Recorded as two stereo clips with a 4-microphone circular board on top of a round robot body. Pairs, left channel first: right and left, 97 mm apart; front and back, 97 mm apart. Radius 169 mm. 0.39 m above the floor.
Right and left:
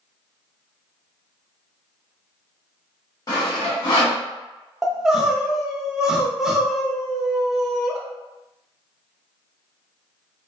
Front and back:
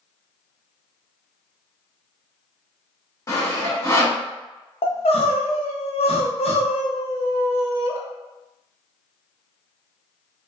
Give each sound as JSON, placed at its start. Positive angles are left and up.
{"t": 3.3, "sound": "sawing", "azimuth_deg": -50, "distance_m": 1.6}
{"t": 4.8, "sound": "crying", "azimuth_deg": 5, "distance_m": 0.6}